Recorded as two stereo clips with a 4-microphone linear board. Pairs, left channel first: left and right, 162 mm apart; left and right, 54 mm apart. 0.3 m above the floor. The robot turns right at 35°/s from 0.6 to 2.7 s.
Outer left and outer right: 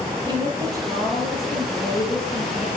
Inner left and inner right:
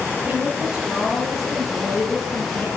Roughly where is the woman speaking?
Ahead right.